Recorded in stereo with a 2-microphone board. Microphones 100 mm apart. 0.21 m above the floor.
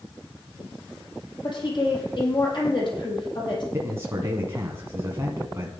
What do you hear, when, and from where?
1.4 s a woman speaking: 50° left (ahead or behind), 5.5 m
3.7 s a man speaking: 25° right (ahead or behind), 1.4 m